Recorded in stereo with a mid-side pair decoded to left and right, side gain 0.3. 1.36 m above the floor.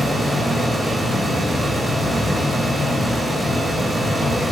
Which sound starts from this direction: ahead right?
A fan, at 0.0 s.